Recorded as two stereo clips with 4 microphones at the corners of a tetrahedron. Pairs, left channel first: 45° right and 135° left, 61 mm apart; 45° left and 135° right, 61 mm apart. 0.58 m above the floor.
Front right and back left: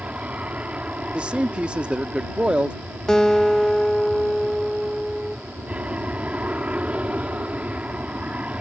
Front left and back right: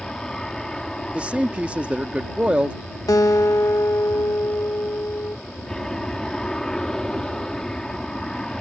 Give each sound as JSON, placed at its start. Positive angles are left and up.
{"t": 0.0, "sound": "an aircraft", "azimuth_deg": 110}
{"t": 1.1, "sound": "a man speaking", "azimuth_deg": 180}
{"t": 3.1, "sound": "a guitar", "azimuth_deg": 35}